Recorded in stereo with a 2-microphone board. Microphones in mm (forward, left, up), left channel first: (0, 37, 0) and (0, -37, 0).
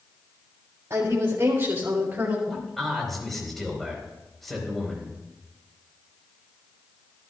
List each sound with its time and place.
0.9 s a woman speaking: 45° right (ahead or behind), 3 m; by 2.4 s 30° right (ahead or behind), 2 m
2.5 s a man speaking: 5° left (ahead or behind), 4 m